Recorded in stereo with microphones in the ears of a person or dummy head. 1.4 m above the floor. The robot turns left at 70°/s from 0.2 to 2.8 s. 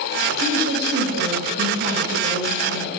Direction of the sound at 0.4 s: 35° right.